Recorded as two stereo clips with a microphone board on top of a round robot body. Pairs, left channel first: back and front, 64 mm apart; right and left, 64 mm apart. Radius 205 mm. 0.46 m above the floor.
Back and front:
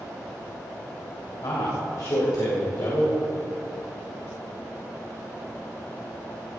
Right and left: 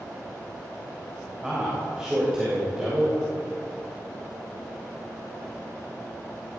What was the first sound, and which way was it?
A man speaking, 165° left.